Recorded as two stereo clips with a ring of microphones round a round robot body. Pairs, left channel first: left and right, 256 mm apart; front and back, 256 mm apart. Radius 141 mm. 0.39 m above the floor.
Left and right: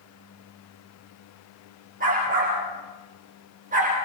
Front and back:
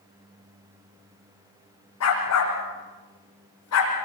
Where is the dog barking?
25° right, 9.5 m.